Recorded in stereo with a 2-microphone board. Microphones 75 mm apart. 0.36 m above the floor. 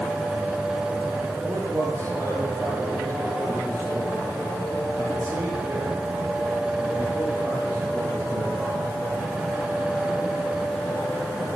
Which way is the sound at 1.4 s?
45° right (ahead or behind).